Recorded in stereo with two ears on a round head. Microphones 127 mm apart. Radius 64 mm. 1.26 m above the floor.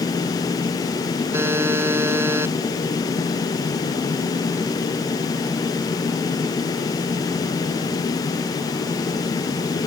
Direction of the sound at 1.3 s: 15° right (ahead or behind).